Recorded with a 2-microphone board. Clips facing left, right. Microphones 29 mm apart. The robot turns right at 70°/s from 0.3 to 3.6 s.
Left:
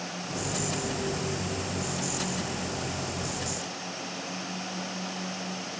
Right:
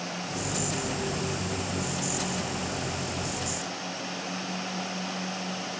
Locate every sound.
Only background noise.